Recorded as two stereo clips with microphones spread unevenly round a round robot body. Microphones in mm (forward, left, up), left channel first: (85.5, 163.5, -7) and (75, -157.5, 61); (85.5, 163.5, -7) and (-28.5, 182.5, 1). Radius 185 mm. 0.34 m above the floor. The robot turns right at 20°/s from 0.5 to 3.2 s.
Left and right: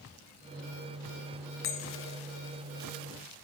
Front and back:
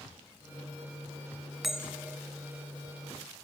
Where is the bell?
80° left, 1.1 m; by 2.2 s 90° left, 1.1 m.